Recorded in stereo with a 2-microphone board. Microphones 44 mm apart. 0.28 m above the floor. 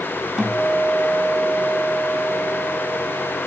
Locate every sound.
0.4 s a guitar: 20° right (ahead or behind), 3 m